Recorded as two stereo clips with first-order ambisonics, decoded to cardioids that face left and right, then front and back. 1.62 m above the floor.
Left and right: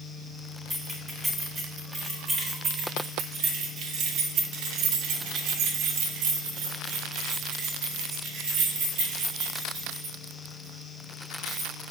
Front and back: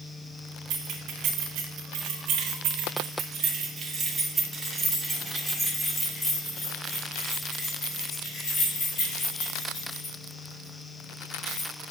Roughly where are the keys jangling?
Behind.